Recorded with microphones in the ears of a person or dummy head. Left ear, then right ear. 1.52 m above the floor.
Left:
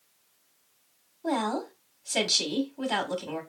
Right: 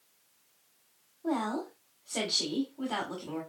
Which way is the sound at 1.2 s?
45° left (ahead or behind).